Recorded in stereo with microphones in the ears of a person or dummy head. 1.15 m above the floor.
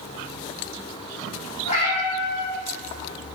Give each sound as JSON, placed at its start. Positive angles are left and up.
{"t": 1.6, "sound": "a cat meowing", "side_deg": 35, "distance_m": 0.8}